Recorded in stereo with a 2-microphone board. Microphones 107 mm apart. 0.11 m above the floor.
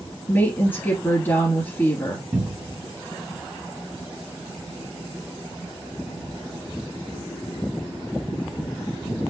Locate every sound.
0.3 s a woman speaking: 20° left (ahead or behind), 2 m
2.3 s a cupboard door: 40° right (ahead or behind), 1.4 m